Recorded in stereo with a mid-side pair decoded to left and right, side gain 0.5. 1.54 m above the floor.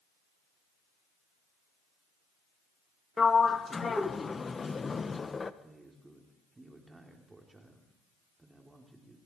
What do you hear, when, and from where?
3.2 s a sliding door: 30° left, 1.3 m
5.6 s a man speaking: 20° right, 4 m